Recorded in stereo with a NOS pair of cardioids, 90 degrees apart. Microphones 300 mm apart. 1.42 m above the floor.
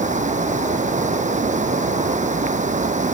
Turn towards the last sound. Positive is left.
turn(degrees=-25)